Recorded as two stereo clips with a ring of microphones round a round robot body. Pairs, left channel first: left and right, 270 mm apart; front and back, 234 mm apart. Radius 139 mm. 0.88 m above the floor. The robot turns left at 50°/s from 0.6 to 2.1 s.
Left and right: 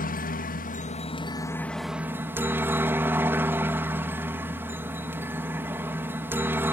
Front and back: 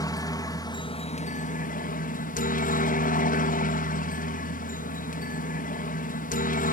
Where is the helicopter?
60° left; by 6.7 s 15° right.